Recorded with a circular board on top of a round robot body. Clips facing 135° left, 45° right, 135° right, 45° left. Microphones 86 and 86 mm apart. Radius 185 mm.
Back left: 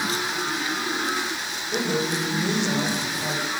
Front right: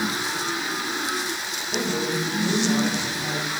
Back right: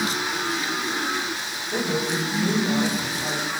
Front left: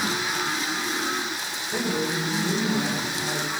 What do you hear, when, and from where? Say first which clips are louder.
1.7 s a woman speaking: back left 1 dB, back right 1 dB; 155° left, 5 m; by 3.4 s straight behind, 6 m